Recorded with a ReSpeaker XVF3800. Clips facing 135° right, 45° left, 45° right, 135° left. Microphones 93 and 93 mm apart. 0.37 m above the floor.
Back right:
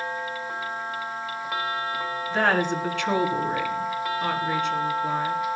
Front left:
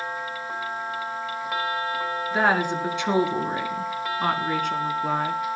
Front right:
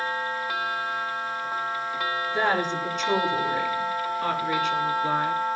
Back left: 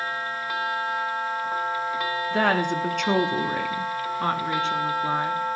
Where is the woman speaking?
125° left, 3.5 m; by 5.4 s 65° left, 3.5 m.